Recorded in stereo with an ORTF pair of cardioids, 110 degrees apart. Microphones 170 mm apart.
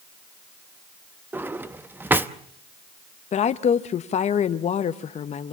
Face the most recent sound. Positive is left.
turn(degrees=45)